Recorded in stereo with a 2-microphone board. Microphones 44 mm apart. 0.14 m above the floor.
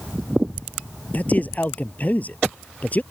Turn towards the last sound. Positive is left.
turn(degrees=40)  # may be behind; listen again after turning